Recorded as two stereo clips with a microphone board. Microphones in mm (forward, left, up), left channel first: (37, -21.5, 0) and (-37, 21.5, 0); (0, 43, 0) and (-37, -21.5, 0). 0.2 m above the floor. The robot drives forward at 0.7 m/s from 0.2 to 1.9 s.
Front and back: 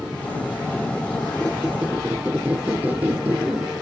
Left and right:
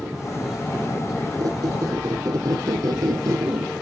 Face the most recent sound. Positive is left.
turn(degrees=-140)